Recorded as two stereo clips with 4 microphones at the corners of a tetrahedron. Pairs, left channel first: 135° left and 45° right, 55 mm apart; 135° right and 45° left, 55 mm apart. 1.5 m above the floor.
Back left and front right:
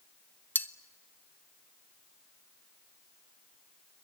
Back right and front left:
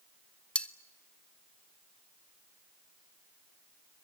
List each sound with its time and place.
0.6 s cutlery clinking: 165° left, 0.7 m